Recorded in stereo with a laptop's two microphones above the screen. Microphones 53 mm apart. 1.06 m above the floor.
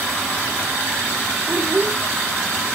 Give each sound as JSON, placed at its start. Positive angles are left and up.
{"t": 1.5, "sound": "a child speaking", "side_deg": -30, "distance_m": 0.8}